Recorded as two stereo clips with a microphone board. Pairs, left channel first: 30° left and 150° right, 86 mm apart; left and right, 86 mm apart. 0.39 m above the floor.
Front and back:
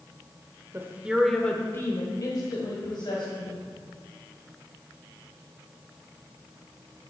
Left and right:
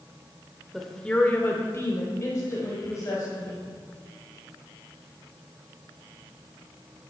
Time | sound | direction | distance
0.7 | a woman speaking | straight behind | 0.9 m